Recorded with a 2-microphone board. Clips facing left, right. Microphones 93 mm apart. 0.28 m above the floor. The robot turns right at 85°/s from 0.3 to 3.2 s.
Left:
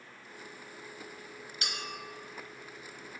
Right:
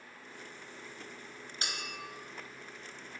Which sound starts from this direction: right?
A clink, at 1.6 s.